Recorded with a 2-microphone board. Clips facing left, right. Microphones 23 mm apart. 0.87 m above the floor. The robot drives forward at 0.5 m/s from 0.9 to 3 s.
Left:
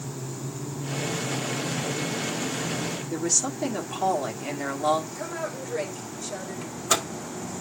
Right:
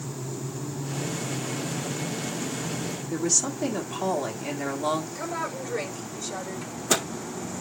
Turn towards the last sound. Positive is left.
turn(degrees=10)  # may be behind; listen again after turning